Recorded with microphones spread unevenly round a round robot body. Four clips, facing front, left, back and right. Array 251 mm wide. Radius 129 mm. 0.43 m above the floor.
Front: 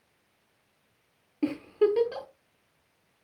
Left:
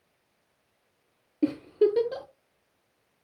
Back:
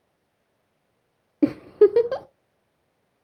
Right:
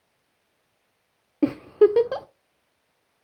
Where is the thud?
No thud in this recording.